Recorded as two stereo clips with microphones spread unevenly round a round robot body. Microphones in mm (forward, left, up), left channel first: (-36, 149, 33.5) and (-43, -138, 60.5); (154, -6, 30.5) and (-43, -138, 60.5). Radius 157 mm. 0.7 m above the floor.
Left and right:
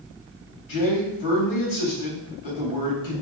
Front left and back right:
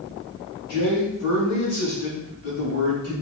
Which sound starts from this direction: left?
A man speaking, at 0.7 s.